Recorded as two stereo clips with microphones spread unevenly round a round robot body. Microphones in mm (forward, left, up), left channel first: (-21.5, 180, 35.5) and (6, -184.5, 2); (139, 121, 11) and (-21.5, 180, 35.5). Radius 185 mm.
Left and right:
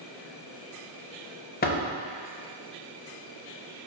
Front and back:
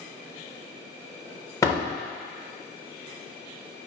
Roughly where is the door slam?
Ahead left.